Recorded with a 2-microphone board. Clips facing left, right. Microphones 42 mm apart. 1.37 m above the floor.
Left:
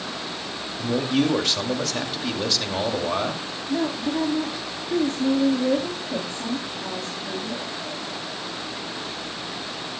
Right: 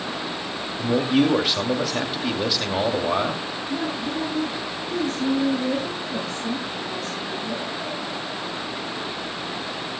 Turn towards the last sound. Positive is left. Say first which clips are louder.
# left 4 dB
turn(degrees=40)  # may be behind; listen again after turning